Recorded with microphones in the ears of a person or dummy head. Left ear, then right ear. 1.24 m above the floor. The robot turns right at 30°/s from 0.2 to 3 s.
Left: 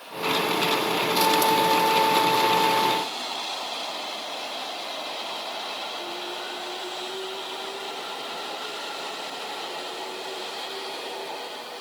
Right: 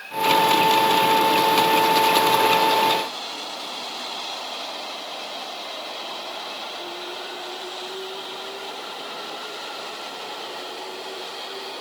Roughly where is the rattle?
No rattle in this recording.